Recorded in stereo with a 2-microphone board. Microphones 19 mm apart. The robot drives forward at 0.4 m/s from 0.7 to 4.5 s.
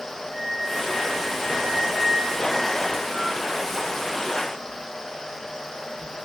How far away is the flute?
About 3 m.